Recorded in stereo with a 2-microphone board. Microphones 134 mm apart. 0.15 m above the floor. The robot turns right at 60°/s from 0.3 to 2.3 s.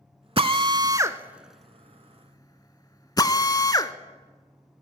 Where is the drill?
45° right (ahead or behind), 0.6 m; by 3.9 s 30° left (ahead or behind), 0.6 m.